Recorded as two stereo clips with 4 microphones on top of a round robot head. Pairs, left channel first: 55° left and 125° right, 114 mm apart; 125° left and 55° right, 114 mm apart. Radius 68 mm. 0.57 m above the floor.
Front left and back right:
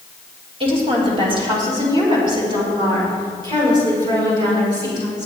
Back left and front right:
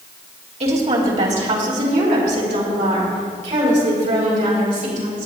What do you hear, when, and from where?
0.6 s a woman speaking: 85° right, 3 m; by 5.3 s 70° right, 7 m